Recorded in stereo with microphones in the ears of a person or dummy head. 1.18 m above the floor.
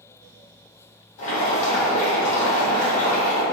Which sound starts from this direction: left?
Boiling, at 1.2 s.